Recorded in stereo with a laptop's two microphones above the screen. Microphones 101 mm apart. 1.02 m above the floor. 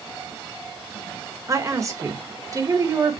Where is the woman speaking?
35° right (ahead or behind), 1.3 m.